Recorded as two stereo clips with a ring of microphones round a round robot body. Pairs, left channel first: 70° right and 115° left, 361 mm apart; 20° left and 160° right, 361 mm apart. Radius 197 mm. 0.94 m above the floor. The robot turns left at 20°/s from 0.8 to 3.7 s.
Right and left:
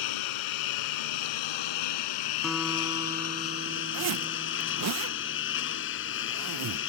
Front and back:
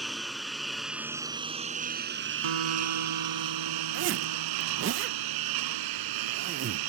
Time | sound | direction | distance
0.0 | a lawn mower | 70° right | ?
2.4 | a guitar | 155° right | ?
3.9 | a zipper | 150° left | ?